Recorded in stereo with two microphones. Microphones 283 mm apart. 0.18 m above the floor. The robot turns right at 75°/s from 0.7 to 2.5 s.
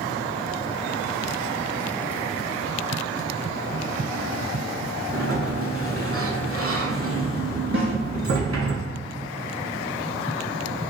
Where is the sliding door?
55° right (ahead or behind), 0.5 m.